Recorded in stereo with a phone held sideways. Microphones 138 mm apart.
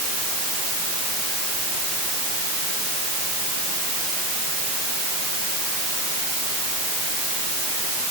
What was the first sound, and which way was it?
Only background noise.